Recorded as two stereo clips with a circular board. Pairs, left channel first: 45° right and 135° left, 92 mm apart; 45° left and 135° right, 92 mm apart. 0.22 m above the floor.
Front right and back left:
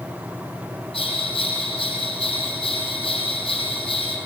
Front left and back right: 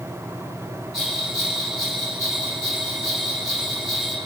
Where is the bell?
45° right, 6.5 m.